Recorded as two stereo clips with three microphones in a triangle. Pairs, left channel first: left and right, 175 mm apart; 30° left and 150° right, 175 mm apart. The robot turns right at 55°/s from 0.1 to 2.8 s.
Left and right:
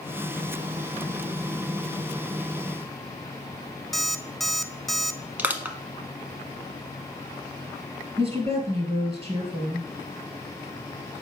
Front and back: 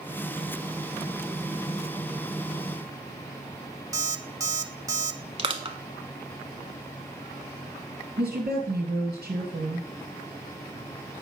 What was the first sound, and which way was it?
An alarm clock, 175° left.